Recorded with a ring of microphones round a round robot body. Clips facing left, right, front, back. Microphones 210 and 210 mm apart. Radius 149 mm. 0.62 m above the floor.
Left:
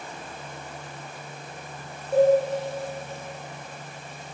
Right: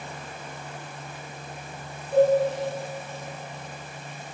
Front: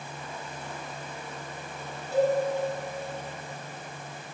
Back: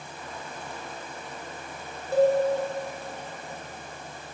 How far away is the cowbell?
About 2 m.